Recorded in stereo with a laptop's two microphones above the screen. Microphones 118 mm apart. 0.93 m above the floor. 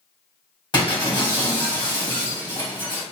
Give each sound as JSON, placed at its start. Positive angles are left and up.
{"t": 0.7, "sound": "breaking glass", "side_deg": 40, "distance_m": 1.2}